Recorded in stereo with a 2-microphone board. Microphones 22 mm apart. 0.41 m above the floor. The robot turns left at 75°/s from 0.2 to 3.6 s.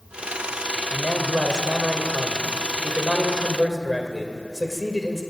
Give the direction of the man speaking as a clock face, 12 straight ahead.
12 o'clock.